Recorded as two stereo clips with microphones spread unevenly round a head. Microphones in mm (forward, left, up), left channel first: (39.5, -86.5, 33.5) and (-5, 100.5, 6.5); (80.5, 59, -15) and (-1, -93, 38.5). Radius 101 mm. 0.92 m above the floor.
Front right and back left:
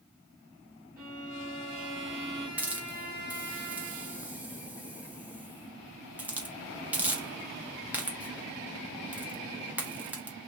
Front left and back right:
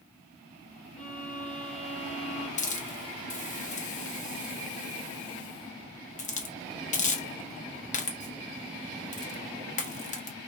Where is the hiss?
25° left, 0.8 m.